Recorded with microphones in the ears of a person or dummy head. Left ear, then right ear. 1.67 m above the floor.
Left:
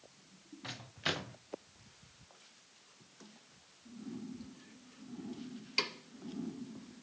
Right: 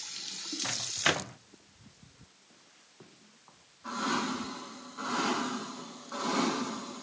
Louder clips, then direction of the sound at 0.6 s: Right 8 dB; 25° right (ahead or behind).